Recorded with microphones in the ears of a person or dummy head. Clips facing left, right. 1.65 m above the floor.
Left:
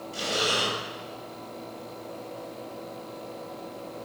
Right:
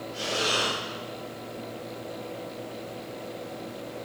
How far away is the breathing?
About 3.5 m.